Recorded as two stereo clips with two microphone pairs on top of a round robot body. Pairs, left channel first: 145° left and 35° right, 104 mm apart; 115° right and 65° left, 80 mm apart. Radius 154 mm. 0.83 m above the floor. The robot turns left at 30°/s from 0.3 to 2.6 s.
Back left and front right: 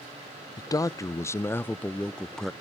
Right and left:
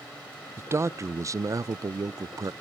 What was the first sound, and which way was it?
A man speaking, 110° left.